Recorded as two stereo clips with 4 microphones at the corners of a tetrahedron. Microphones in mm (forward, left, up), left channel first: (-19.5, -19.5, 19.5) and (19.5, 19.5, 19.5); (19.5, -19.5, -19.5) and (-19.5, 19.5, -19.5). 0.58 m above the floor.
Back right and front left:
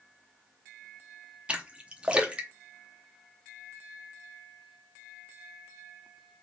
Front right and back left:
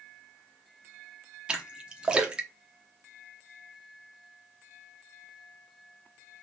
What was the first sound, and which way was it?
A splash, 90° left.